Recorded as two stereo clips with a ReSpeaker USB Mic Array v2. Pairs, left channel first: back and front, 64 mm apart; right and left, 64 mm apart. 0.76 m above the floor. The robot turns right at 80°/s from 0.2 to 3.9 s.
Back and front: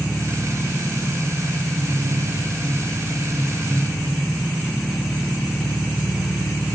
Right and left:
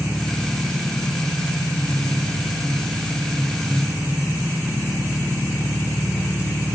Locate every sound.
0.0 s an engine running: 150° right, 6 m; by 6.8 s 145° left, 6 m